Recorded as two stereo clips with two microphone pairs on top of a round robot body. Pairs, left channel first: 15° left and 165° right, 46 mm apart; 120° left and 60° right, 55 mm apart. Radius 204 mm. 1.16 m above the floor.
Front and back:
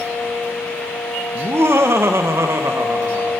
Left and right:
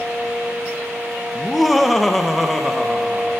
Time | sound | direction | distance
1.4 | laughter | 155° right | 1.9 m